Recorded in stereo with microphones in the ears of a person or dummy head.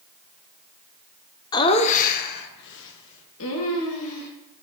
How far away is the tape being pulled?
No tape being pulled in this recording.